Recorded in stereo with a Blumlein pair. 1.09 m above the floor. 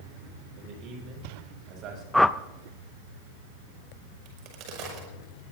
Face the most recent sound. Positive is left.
turn(degrees=-40)